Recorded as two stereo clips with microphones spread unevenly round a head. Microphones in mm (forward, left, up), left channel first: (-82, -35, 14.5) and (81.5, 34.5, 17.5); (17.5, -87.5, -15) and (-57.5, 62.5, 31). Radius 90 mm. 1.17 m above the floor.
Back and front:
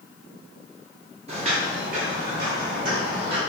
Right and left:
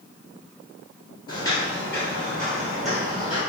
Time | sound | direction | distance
1.3 | footsteps | 10° left | 1.4 m